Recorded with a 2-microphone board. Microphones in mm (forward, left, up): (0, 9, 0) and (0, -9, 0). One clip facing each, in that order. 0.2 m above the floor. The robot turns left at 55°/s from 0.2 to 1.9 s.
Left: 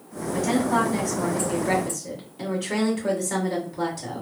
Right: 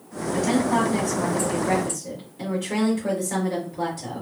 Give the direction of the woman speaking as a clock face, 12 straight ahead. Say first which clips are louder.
Right 1 dB; 5 o'clock.